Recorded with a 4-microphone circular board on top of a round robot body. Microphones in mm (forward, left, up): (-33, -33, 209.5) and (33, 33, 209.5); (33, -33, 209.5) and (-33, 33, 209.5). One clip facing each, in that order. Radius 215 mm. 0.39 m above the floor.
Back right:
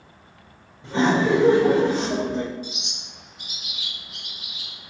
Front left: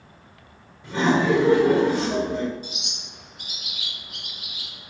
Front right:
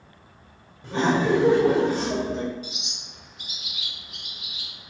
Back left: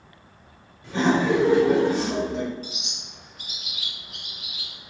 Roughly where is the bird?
Left.